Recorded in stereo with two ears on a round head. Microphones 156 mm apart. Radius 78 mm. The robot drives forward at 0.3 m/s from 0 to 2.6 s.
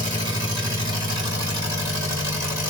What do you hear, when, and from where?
0.0 s an engine running: 30° right (ahead or behind), 2.5 m; by 2.7 s 20° right (ahead or behind), 3 m